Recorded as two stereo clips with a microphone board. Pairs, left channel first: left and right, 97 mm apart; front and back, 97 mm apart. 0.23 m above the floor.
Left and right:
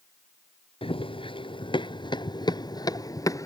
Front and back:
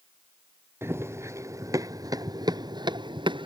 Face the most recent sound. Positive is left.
turn(degrees=145)